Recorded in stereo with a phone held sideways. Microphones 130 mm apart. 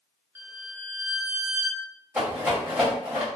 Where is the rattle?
15° right (ahead or behind), 1.6 m.